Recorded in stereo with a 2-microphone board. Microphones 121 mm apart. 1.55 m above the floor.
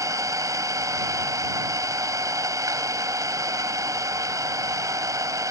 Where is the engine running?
30° right (ahead or behind).